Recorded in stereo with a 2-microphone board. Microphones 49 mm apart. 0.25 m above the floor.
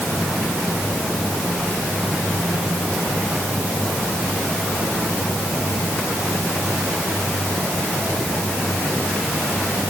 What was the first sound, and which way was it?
Only background noise.